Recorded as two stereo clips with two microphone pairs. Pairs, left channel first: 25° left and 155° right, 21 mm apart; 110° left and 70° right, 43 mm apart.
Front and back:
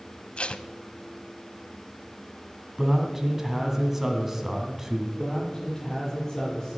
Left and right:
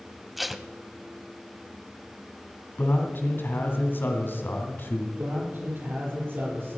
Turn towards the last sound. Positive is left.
turn(degrees=-35)